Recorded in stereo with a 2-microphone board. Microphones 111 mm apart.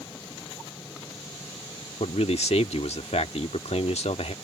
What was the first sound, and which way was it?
A man speaking, 75° left (ahead or behind).